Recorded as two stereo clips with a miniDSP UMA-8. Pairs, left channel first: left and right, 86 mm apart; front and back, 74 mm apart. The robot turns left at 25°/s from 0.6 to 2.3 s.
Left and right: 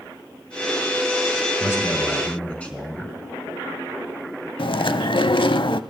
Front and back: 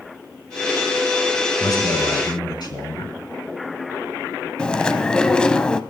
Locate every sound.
1.6 s a man speaking: 35° left, 4.5 m; by 3.2 s 15° left, 4.5 m
4.6 s chewing: 80° left, 0.6 m